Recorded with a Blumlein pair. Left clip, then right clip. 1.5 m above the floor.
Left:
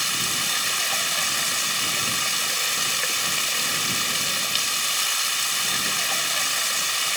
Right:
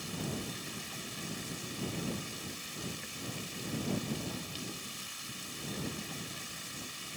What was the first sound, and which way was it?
Running water, 50° left.